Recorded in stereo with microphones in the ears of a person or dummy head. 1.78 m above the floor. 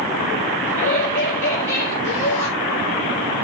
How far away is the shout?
About 4.5 m.